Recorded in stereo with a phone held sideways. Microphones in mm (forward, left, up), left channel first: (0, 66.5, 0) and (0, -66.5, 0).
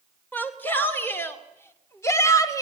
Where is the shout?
15° left (ahead or behind), 3 m; by 2.6 s 25° left (ahead or behind), 1.7 m.